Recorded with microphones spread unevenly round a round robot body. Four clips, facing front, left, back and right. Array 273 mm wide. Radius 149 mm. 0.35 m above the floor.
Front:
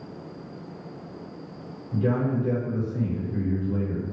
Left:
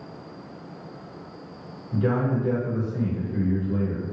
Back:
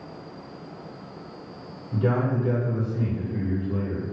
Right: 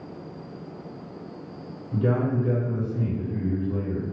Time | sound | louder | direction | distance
1.9 | a man speaking | even, even | 155° left | 1.2 m